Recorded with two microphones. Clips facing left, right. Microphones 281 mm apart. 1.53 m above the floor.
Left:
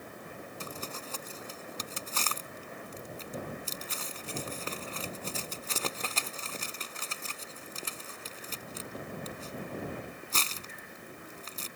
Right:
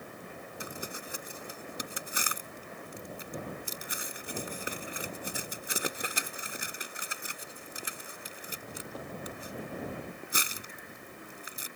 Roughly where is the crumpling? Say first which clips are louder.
Right 2 dB; centre.